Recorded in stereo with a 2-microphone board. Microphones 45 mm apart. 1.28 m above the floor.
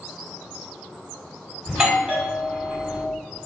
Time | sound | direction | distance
1.7 | a doorbell | 15° right (ahead or behind) | 1.3 m